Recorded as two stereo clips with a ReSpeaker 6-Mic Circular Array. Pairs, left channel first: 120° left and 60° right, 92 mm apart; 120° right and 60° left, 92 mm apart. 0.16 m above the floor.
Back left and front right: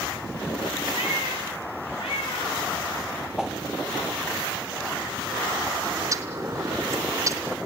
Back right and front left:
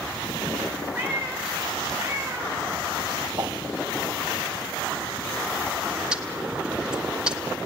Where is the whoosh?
25° left, 1.1 m.